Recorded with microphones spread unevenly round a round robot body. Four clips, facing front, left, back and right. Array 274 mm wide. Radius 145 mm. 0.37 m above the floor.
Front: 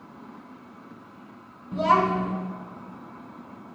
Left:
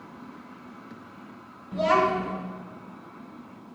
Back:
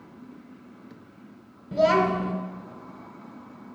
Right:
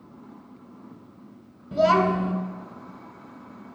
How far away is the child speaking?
About 1.4 m.